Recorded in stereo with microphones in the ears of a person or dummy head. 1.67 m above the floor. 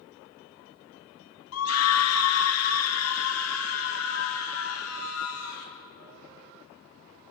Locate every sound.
1.5 s a scream: 85° left, 1.4 m; by 5.7 s 80° left, 5 m